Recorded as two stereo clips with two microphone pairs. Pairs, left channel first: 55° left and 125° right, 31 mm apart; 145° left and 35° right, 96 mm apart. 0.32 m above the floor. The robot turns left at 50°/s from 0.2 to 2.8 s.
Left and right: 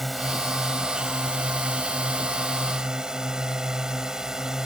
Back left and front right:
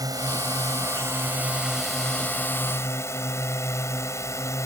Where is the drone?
30° right; by 4.7 s straight behind.